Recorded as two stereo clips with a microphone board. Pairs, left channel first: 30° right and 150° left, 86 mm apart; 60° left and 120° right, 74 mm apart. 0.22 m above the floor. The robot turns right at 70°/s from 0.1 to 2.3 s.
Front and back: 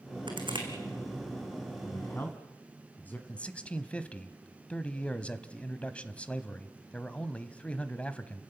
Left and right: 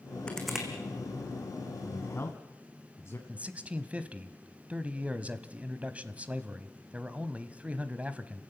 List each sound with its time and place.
0.3 s crushing: 135° left, 3 m; by 0.7 s 165° left, 3 m
1.9 s a man speaking: straight ahead, 1.4 m; by 3.2 s 30° left, 1.4 m
3.3 s a man speaking: 80° right, 1.0 m